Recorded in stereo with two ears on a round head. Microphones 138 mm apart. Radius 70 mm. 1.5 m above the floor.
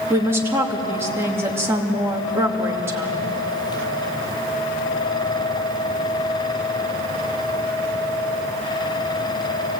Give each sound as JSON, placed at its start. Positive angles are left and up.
{"t": 0.1, "sound": "a woman speaking", "side_deg": -15, "distance_m": 2.5}